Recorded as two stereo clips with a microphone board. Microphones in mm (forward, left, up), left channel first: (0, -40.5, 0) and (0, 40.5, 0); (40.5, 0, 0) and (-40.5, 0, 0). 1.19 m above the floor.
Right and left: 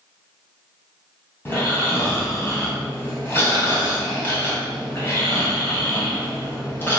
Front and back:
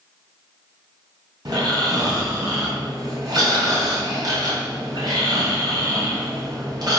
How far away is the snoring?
About 2.5 m.